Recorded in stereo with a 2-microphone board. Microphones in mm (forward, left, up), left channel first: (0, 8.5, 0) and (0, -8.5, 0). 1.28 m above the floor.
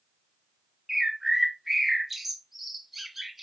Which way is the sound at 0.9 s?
10° right (ahead or behind).